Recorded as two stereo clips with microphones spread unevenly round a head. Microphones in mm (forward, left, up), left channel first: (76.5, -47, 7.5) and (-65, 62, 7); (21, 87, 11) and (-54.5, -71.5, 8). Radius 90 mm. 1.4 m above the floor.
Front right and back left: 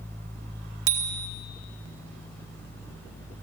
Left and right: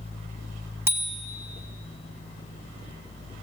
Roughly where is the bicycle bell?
Behind.